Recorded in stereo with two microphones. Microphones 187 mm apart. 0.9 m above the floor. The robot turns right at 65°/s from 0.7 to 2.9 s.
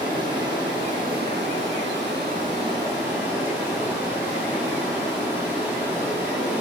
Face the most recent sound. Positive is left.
turn(degrees=-10)